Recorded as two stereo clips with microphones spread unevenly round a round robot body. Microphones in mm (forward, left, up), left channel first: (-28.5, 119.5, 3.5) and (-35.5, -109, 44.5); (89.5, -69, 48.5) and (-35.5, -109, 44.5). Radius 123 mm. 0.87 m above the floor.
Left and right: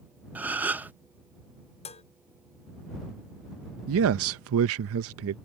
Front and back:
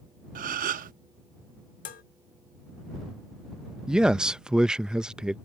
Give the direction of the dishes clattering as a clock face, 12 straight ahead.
11 o'clock.